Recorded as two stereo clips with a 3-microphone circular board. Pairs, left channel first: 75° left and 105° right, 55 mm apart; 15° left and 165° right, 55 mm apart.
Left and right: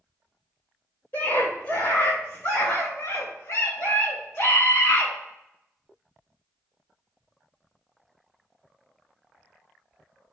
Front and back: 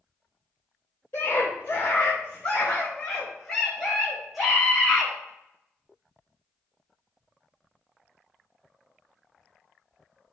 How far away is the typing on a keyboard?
I don't hear typing on a keyboard.